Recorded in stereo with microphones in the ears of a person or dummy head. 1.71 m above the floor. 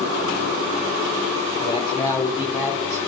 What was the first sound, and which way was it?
A man speaking, 30° left (ahead or behind).